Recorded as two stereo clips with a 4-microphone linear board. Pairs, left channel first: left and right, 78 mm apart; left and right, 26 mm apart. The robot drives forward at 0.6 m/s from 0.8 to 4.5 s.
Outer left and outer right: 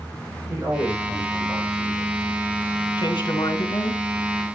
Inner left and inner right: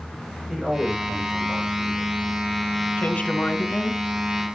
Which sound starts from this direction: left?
A woman speaking, at 3.0 s.